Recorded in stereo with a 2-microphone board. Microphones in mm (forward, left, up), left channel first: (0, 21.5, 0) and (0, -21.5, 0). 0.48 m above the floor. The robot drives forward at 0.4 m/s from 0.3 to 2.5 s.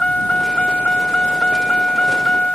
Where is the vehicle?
25° left (ahead or behind).